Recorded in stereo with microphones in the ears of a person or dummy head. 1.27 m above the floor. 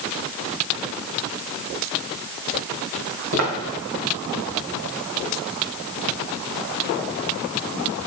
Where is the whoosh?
No whoosh in this recording.